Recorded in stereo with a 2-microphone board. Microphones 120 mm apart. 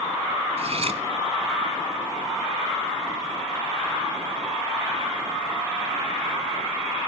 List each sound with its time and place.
0.6 s cutlery clinking: 55° right (ahead or behind), 1.5 m